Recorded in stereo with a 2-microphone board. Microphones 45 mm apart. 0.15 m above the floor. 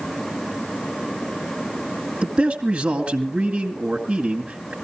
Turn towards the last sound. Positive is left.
turn(degrees=-25)  # may be behind; listen again after turning